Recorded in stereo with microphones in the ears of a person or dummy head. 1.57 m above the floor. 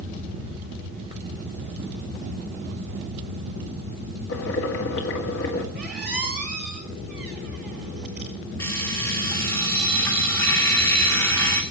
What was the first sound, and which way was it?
Boiling, 70° left (ahead or behind).